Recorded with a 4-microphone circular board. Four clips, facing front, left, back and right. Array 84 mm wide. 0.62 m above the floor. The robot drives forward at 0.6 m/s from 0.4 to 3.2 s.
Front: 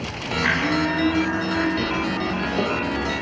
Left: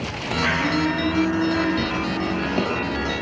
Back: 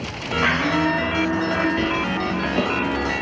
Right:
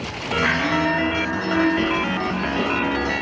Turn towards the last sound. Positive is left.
turn(degrees=140)